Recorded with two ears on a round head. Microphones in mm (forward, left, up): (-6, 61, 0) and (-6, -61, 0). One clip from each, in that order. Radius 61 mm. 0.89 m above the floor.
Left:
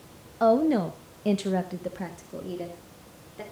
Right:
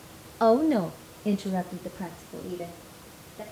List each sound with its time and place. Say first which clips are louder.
0.4 s a woman speaking: even; 25° right (ahead or behind), 0.9 m; by 3.4 s 80° left, 3 m